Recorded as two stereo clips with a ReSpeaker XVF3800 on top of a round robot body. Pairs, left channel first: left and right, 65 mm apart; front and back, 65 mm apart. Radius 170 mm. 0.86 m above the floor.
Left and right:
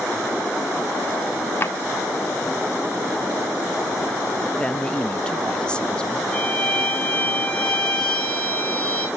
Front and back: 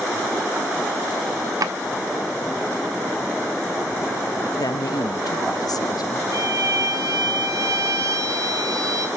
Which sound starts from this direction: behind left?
A drawer, at 1.6 s.